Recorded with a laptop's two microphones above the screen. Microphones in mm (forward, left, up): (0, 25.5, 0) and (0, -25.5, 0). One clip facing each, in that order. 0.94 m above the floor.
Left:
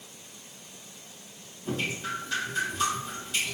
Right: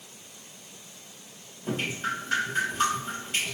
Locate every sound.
1.6 s dripping: 40° right (ahead or behind), 1.3 m